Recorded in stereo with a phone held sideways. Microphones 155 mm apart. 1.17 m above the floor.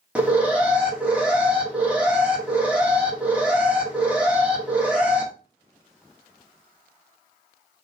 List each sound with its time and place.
0.1 s an alarm: 10° right (ahead or behind), 1.0 m